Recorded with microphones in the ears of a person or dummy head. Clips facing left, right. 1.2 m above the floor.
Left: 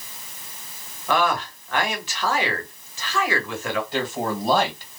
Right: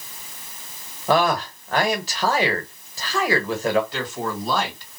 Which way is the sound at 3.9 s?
25° left (ahead or behind).